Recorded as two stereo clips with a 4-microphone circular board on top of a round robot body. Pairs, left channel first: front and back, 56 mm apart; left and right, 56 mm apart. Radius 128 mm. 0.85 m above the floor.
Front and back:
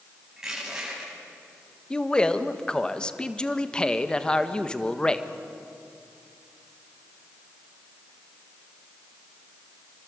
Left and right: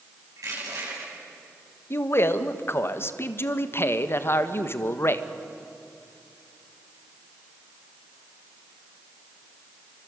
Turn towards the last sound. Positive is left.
turn(degrees=70)